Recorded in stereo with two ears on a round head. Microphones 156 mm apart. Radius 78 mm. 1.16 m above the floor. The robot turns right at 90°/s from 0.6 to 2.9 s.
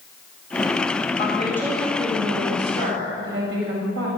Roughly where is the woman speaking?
Behind left.